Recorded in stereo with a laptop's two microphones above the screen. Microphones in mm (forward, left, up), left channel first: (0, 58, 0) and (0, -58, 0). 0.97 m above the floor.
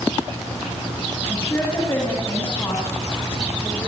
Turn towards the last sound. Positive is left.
turn(degrees=25)  # may be behind; listen again after turning